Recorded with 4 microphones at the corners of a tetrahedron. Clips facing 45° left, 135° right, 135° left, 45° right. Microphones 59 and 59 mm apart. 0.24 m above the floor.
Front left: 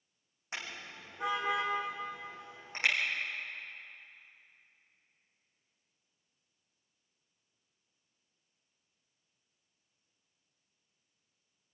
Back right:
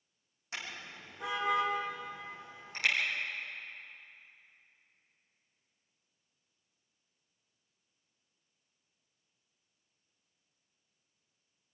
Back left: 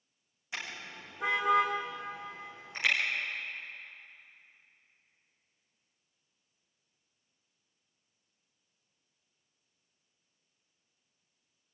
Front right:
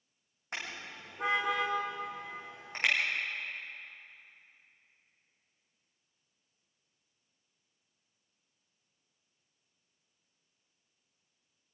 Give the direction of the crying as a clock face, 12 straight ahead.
No crying in this recording.